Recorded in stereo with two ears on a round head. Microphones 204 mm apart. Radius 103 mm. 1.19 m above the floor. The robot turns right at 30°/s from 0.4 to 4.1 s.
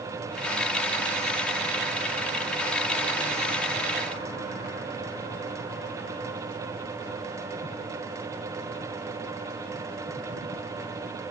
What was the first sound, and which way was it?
Only background noise.